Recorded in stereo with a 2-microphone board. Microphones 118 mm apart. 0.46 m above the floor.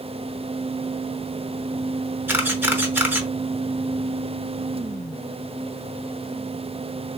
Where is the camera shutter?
15° right (ahead or behind), 0.7 m.